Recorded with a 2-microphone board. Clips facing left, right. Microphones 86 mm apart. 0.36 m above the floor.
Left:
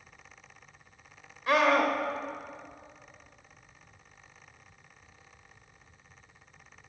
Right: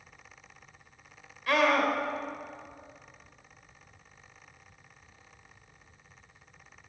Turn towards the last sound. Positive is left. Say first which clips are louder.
# left 1 dB
turn(degrees=25)  # may be behind; listen again after turning